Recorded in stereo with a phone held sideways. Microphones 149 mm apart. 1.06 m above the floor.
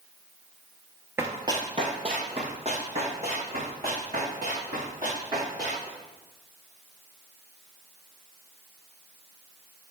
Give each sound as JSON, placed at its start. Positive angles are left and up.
{"t": 1.2, "sound": "running footsteps", "side_deg": -15, "distance_m": 1.0}